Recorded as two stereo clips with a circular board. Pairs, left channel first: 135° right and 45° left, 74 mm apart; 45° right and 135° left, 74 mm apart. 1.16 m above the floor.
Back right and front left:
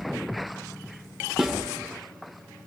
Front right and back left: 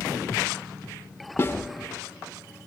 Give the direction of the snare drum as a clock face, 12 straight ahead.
1 o'clock.